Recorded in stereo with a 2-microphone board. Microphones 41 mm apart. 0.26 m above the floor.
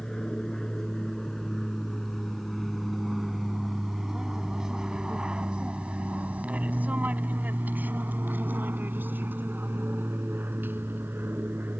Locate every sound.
0.0 s an aircraft: 15° left (ahead or behind); by 11.8 s 60° right (ahead or behind)